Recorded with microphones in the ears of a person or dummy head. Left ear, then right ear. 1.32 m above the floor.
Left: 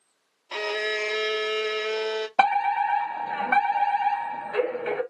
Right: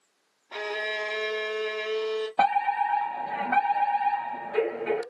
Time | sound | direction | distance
0.5 | a violin | 65° left (ahead or behind) | 0.9 m
2.4 | a fire alarm | 45° left (ahead or behind) | 1.6 m